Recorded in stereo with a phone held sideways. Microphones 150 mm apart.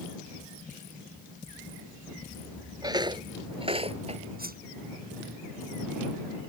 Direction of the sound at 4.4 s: 80° right.